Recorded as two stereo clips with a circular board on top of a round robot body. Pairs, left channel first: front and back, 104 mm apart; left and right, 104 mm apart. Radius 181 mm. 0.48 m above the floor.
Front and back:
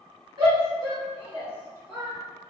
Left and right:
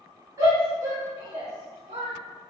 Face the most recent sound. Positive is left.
turn(degrees=-100)